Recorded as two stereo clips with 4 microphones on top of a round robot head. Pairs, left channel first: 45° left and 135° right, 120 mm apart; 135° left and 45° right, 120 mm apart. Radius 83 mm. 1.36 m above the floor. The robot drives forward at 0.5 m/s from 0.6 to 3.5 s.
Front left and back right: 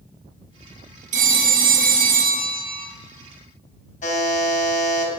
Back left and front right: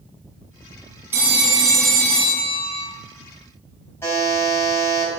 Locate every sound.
1.1 s a phone ringing: 115° right, 0.9 m; by 2.9 s 150° right, 1.4 m
4.0 s a buzzer: 65° left, 4 m